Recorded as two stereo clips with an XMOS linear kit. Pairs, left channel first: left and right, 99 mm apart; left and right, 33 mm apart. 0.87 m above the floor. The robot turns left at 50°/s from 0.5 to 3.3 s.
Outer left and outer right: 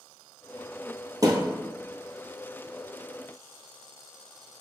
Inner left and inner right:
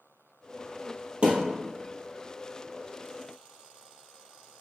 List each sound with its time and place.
1.2 s a thud: 40° right (ahead or behind), 1.3 m; by 1.4 s 45° right (ahead or behind), 1.3 m